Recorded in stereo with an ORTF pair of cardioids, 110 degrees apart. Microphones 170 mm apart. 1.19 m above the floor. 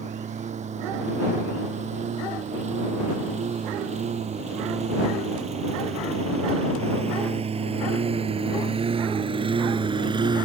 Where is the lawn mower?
45° right; by 10.5 s 30° right.